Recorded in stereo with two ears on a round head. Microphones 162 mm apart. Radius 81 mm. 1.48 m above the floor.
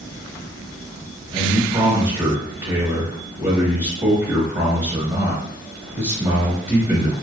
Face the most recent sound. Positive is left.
turn(degrees=-30)  # may be behind; listen again after turning